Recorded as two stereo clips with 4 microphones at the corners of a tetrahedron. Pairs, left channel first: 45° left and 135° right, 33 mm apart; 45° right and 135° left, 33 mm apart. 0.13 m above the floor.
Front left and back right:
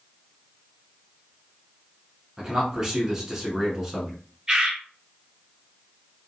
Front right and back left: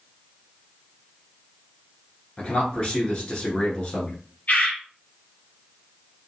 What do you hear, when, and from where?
2.4 s a man speaking: 75° right, 1.2 m
4.5 s a bird: 70° right, 1.8 m